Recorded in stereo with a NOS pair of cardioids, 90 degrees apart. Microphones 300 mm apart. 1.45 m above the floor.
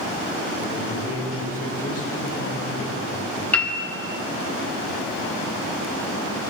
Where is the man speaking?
55° left, 5.5 m.